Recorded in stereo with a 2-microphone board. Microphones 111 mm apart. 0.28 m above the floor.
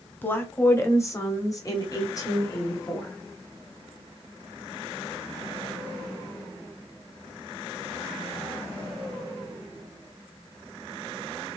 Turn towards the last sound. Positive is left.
turn(degrees=30)  # may be behind; listen again after turning